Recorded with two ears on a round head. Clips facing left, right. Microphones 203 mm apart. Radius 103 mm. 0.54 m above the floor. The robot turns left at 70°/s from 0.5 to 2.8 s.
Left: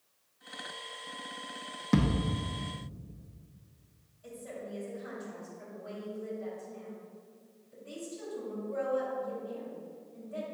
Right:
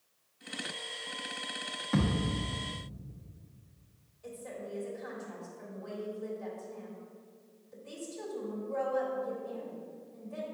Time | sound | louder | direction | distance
1.9 | a thud | left 2 dB | 45° left (ahead or behind) | 1.7 m
4.2 | a woman speaking | even | 60° right (ahead or behind) | 3 m